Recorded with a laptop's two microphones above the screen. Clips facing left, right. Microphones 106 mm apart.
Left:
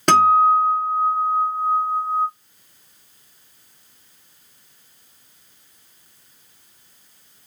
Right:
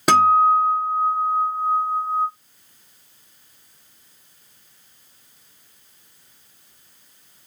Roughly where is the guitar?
Centre.